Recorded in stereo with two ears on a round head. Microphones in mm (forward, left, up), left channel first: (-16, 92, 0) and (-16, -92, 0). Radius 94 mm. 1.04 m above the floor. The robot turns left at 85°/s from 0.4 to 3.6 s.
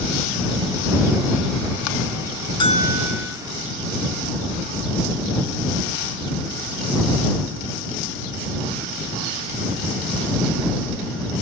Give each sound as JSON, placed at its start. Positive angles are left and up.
{"t": 2.6, "sound": "a bell", "azimuth_deg": 155}